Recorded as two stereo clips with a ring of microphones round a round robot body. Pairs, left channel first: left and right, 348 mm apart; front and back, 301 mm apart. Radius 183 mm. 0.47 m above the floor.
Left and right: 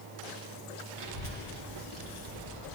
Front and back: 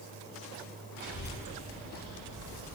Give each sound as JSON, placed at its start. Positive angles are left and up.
{"t": 1.0, "sound": "a child speaking", "azimuth_deg": -100, "distance_m": 2.5}